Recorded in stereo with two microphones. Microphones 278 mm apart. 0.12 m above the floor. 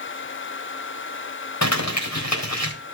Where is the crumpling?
70° left (ahead or behind), 4 m.